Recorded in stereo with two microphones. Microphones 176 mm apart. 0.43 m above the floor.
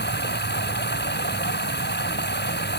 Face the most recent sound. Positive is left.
turn(degrees=85)